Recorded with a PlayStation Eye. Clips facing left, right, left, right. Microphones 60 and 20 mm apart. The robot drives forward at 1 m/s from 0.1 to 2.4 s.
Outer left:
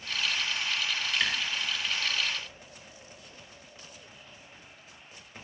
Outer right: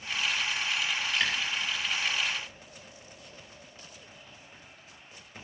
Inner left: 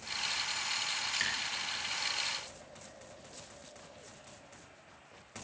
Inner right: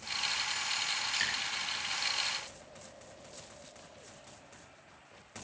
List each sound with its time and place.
1.1 s dripping: centre (ahead or behind), 8.5 m